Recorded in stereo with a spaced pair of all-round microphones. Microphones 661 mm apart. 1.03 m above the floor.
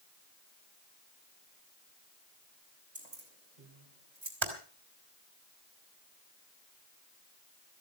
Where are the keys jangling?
85° right, 4.5 m; by 4.3 s 90° right, 3.5 m.